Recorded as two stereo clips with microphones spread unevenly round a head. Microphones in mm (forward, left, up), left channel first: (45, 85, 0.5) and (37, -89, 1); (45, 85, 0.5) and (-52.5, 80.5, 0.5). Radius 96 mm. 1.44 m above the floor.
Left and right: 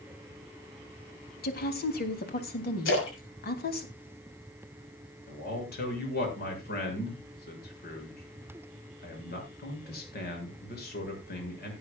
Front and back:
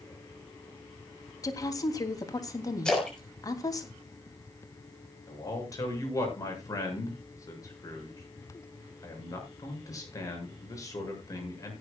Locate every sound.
1.4 s a woman speaking: 55° left, 3 m
2.9 s a splash: 85° left, 6.5 m
5.3 s a man speaking: 55° left, 7.5 m